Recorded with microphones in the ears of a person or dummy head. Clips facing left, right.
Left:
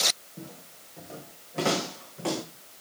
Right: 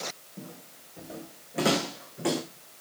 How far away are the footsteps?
About 3 m.